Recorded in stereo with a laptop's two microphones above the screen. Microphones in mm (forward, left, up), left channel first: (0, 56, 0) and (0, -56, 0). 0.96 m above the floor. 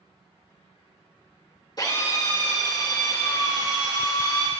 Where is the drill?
35° left (ahead or behind), 2.5 m.